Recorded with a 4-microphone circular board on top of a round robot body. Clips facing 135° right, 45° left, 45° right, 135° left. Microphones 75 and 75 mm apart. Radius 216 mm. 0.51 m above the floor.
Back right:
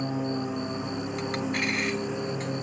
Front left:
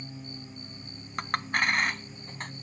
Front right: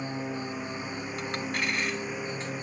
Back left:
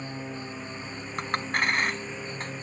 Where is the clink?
90° left.